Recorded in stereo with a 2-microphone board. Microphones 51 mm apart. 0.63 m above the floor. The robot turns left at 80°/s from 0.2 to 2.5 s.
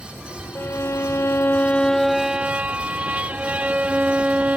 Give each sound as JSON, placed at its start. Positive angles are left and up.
{"t": 0.6, "sound": "a violin", "azimuth_deg": 125}